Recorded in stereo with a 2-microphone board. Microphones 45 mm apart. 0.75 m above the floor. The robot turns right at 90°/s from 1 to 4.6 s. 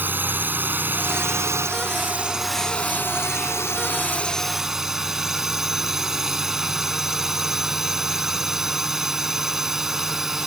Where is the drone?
135° right; by 10.5 s 170° right.